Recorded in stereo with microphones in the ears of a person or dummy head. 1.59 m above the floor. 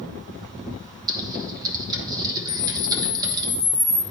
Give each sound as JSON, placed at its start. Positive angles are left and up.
{"t": 1.1, "sound": "typing on a keyboard", "side_deg": -20, "distance_m": 1.0}
{"t": 2.5, "sound": "a camera shutter", "side_deg": -10, "distance_m": 1.4}